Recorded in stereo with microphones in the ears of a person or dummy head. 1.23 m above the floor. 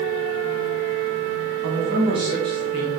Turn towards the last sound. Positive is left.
turn(degrees=25)  # may be behind; listen again after turning